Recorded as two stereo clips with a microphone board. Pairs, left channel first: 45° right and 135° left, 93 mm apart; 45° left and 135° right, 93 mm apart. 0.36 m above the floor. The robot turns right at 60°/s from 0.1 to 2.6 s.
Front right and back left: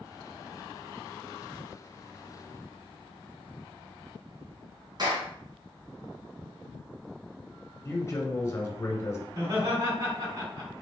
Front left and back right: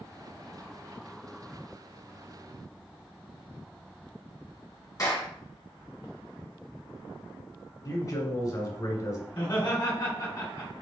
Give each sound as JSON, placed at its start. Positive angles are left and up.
{"t": 5.0, "sound": "a clap", "azimuth_deg": 95, "distance_m": 2.5}
{"t": 7.8, "sound": "a man speaking", "azimuth_deg": 5, "distance_m": 1.6}
{"t": 9.3, "sound": "laughter", "azimuth_deg": 110, "distance_m": 2.5}